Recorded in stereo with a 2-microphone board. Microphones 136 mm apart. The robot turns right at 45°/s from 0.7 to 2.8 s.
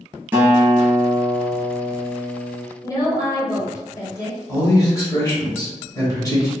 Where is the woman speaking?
25° left (ahead or behind), 1.0 m.